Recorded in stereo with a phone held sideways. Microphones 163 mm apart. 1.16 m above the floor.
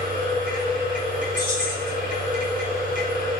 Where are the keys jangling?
60° left (ahead or behind), 1.6 m.